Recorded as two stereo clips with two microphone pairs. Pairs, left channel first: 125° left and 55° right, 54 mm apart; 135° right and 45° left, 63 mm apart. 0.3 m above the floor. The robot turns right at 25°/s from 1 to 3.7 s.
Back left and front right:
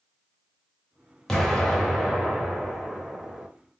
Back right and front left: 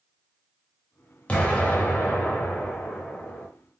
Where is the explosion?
165° right, 1.0 m; by 3.5 s 110° right, 1.0 m.